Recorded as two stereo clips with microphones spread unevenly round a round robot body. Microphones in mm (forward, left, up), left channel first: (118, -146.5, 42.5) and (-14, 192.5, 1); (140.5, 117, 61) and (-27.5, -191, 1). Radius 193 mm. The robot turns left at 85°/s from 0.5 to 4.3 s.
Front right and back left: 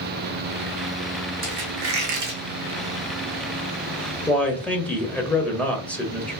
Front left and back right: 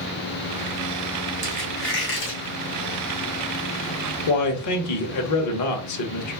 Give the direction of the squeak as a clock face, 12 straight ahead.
6 o'clock.